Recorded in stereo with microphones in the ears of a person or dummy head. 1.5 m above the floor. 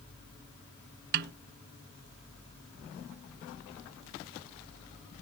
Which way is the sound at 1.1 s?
55° right (ahead or behind).